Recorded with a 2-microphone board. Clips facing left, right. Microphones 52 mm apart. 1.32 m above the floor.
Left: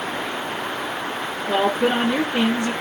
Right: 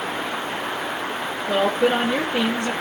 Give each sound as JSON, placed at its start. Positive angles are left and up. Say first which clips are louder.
{"t": 1.5, "sound": "a woman speaking", "louder": "even", "side_deg": 20, "distance_m": 1.3}